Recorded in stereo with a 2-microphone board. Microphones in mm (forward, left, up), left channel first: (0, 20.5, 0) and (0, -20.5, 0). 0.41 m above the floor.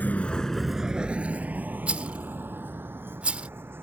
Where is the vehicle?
40° left (ahead or behind); by 3.8 s 65° right (ahead or behind).